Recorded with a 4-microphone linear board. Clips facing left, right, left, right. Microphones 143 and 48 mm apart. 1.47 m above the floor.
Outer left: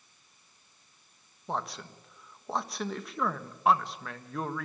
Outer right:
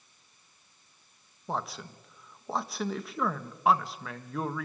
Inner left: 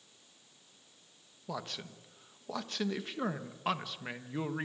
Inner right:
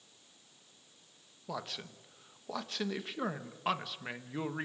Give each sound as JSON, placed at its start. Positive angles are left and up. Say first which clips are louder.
{"t": 1.5, "sound": "a man speaking", "louder": "even, even", "side_deg": 0, "distance_m": 1.4}